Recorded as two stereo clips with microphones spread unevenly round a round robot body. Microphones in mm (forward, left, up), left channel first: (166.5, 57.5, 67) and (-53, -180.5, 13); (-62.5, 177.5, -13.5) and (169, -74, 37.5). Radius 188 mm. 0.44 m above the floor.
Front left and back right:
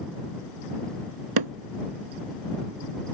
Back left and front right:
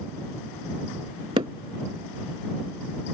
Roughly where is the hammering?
Behind right.